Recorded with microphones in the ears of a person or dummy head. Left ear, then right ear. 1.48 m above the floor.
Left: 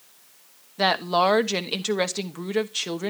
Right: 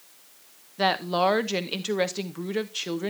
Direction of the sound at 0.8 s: 15° left (ahead or behind).